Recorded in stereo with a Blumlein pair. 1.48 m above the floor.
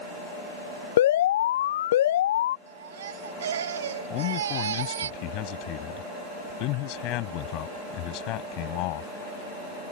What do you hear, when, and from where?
1.0 s an alarm: 60° left
2.7 s a baby crying: 65° right
4.1 s a man speaking: 40° left